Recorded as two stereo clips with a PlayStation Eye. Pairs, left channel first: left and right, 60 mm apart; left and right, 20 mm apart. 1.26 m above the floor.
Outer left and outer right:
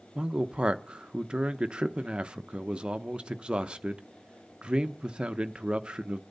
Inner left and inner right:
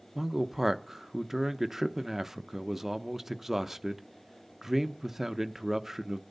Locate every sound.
0.1 s a man speaking: 15° right (ahead or behind), 0.9 m